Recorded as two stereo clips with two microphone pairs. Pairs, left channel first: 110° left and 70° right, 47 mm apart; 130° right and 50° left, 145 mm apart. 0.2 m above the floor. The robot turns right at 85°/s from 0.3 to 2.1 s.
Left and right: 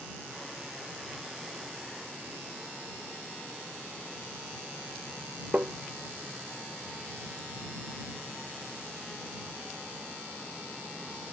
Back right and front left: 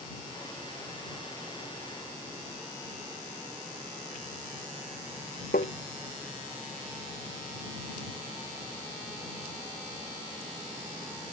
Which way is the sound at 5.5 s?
125° right.